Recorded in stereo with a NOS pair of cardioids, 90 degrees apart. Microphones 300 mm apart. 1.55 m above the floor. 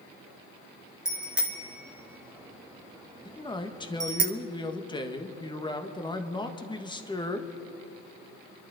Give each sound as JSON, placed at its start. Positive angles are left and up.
{"t": 1.1, "sound": "a bicycle bell", "azimuth_deg": -5, "distance_m": 2.5}
{"t": 3.2, "sound": "a man speaking", "azimuth_deg": 15, "distance_m": 1.6}